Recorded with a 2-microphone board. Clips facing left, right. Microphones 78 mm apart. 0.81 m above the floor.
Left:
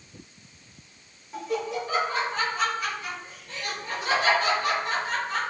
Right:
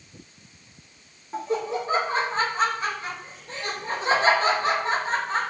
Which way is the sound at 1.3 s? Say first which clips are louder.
Right 3 dB; 30° right (ahead or behind).